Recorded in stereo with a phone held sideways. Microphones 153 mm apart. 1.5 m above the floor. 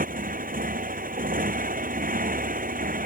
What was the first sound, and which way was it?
A motorcycle, 65° right (ahead or behind).